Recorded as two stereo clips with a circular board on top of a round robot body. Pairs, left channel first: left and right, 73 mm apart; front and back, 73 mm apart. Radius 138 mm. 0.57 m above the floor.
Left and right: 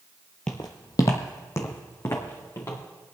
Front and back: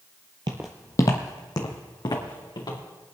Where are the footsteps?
165° left, 0.6 m; by 2.8 s 30° left, 3.5 m.